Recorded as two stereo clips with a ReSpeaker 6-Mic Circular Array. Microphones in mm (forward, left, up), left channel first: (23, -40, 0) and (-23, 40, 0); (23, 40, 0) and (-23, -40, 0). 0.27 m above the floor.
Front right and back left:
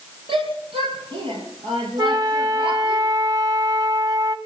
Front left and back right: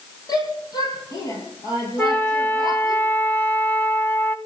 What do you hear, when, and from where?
0.3 s a shout: 105° left, 8.5 m; by 3.0 s 100° left, 4.5 m
2.0 s a flute: 115° left, 1.4 m